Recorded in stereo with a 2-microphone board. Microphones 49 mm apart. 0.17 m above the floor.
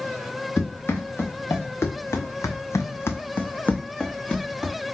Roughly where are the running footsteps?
Left.